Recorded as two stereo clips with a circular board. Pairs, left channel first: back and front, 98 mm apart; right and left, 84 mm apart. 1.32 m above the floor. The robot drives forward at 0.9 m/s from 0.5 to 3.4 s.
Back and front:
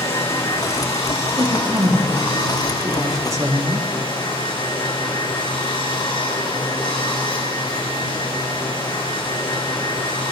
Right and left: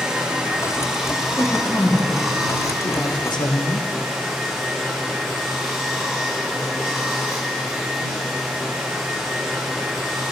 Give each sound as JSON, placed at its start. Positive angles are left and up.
{"t": 0.0, "sound": "running water", "azimuth_deg": 170, "distance_m": 2.0}
{"t": 1.3, "sound": "a woman speaking", "azimuth_deg": -20, "distance_m": 2.5}